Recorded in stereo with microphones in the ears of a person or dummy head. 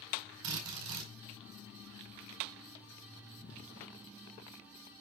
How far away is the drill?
About 4.5 m.